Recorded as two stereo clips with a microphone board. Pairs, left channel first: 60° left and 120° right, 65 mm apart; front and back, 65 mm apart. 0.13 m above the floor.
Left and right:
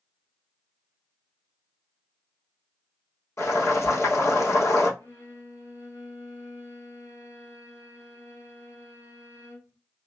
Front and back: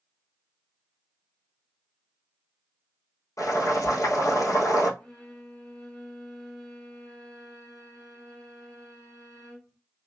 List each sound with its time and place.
3.4 s boiling: 20° left, 1.7 m
5.0 s a violin: 75° left, 2 m